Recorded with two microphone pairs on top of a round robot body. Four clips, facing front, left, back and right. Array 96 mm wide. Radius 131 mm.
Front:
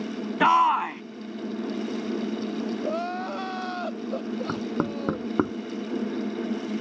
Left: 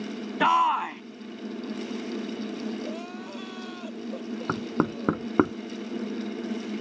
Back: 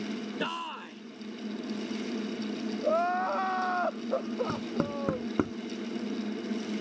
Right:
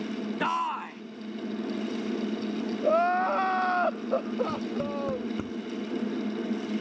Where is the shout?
30° left.